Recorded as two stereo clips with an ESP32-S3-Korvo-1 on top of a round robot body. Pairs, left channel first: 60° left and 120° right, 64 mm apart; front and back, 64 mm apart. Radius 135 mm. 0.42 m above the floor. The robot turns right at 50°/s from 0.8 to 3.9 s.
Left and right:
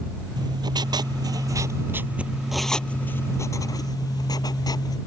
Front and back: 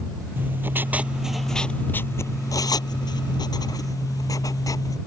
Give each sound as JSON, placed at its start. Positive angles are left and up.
{"t": 0.4, "sound": "writing", "azimuth_deg": -120}